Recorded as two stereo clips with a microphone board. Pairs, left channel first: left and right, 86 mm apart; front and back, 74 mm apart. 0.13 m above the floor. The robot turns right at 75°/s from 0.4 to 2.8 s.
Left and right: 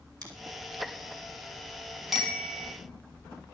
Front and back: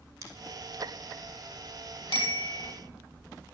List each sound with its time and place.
0.2 s scissors: 130° right, 3.5 m
2.1 s a bicycle bell: 5° right, 3 m; by 2.7 s 45° left, 3 m